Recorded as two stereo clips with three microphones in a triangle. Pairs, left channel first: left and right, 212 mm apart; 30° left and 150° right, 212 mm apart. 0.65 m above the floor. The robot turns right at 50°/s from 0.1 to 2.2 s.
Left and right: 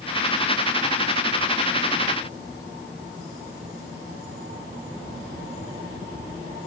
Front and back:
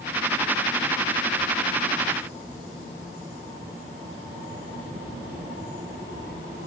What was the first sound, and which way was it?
Only background noise.